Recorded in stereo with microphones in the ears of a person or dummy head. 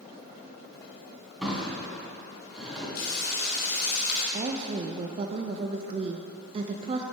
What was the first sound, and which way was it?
A drawer, centre (ahead or behind).